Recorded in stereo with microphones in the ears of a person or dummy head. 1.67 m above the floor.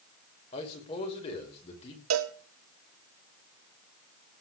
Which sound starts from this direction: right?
A cowbell, at 2.1 s.